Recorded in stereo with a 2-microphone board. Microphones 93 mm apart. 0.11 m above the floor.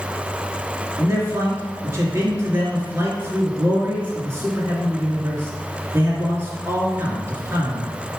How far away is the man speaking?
About 2.0 m.